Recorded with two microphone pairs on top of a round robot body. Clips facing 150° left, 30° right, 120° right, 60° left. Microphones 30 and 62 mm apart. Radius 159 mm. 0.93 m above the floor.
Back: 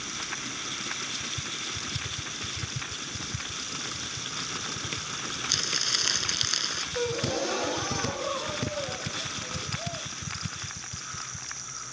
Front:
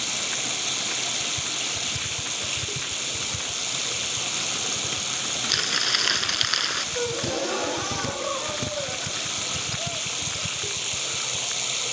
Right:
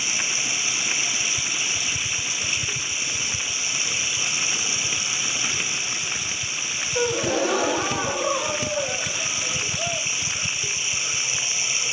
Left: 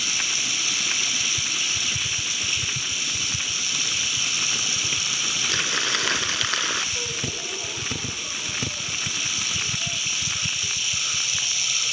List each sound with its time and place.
0.0 s running water: 55° right
5.5 s crumpling: 40° left
7.0 s a gasp: 110° right